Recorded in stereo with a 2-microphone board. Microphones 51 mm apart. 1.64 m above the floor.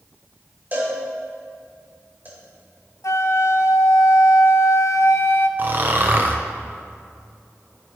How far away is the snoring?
About 0.9 m.